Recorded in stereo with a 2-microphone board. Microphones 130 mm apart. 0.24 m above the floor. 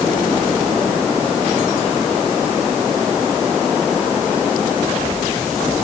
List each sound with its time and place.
Only background noise.